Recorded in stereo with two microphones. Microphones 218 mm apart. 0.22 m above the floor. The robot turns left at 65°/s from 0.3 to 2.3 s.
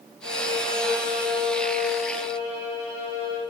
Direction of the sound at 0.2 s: 105° right.